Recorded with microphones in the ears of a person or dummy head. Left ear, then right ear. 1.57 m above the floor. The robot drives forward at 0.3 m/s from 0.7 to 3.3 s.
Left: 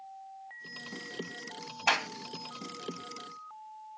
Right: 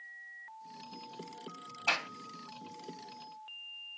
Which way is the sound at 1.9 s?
55° left (ahead or behind).